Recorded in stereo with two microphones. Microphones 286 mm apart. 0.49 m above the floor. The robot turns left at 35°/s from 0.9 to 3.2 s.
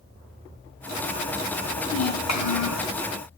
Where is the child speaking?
125° left, 3 m; by 2.9 s 80° left, 3 m.